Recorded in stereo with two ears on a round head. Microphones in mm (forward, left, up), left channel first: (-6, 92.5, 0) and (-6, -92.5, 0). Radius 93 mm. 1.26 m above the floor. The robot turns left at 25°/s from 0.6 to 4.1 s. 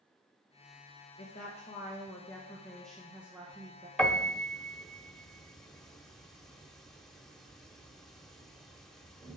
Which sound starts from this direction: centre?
A piano, at 4.0 s.